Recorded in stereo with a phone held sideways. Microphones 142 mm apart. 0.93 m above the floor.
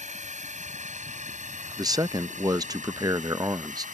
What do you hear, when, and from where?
0.0 s a drone: 60° right (ahead or behind); by 4.0 s 70° right (ahead or behind)
1.8 s a man speaking: 30° right (ahead or behind)